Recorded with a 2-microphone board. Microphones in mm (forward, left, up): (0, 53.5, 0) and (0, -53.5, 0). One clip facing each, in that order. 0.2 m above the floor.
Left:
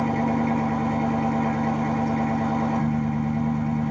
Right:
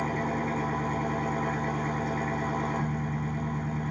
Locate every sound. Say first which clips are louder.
0.0 s an engine running: left 7 dB; 65° left (ahead or behind), 1.4 m